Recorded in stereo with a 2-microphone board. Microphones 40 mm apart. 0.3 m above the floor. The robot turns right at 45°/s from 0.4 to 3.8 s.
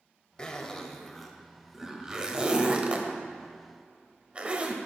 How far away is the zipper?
About 0.8 m.